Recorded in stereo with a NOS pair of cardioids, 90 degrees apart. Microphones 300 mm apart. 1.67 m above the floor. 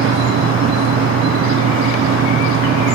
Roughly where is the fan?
Ahead right.